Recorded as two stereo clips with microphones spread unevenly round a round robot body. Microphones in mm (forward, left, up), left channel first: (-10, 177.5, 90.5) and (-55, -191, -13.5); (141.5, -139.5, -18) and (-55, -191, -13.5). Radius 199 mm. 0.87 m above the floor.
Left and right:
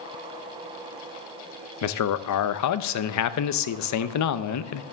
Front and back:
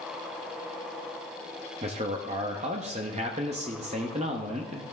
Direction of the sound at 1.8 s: 135° left.